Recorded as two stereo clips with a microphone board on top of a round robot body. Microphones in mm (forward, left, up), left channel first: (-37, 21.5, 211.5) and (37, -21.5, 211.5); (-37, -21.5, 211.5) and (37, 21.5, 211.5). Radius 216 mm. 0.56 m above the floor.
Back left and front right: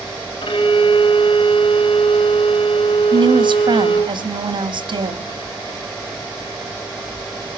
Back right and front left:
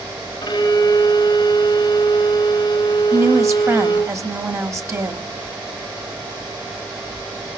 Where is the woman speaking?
25° right, 2.5 m.